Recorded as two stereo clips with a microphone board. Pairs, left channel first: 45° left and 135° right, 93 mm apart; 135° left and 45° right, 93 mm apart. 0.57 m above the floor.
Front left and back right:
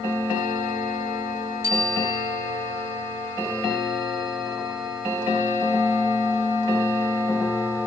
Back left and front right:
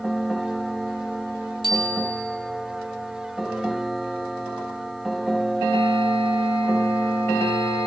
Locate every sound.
1.6 s a bicycle bell: 75° right, 7 m